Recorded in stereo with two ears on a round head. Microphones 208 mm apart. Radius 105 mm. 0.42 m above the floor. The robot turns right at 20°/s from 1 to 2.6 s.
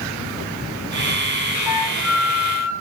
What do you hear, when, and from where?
1.7 s a flute: 5° right (ahead or behind), 3 m; by 2.7 s 15° left (ahead or behind), 3 m